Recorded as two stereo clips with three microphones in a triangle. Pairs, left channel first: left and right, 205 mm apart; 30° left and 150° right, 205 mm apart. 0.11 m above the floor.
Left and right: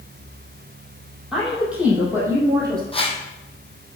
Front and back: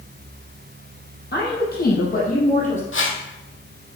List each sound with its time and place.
1.3 s a woman speaking: straight ahead, 3.5 m; by 2.8 s 20° right, 3.5 m
2.9 s a whoosh: 30° left, 1.1 m